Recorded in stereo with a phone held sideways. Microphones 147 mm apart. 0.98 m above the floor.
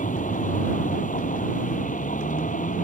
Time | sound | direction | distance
0.0 | a vehicle | 60° left (ahead or behind) | ?